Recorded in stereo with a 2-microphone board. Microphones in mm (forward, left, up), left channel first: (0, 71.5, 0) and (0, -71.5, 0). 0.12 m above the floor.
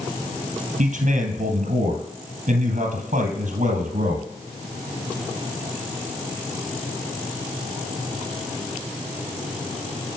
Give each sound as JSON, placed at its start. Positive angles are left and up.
{"t": 0.8, "sound": "a man speaking", "side_deg": -65, "distance_m": 2.5}